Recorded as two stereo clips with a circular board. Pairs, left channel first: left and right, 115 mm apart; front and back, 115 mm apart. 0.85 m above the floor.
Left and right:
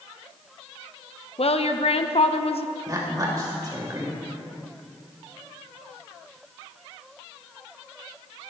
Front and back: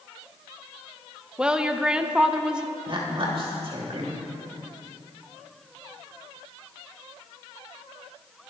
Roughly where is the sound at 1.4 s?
Left.